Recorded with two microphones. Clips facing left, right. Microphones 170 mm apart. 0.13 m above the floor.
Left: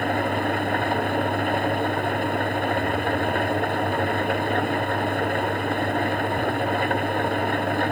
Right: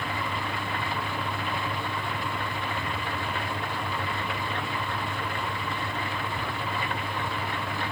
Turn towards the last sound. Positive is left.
turn(degrees=55)  # may be behind; listen again after turning